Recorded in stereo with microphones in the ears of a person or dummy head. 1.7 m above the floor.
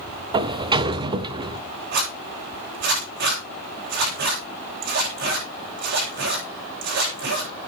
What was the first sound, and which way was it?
A sliding door, 30° right (ahead or behind).